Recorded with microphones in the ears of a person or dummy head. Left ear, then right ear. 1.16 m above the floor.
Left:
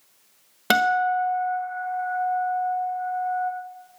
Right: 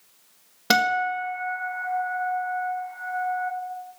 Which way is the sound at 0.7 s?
25° left (ahead or behind).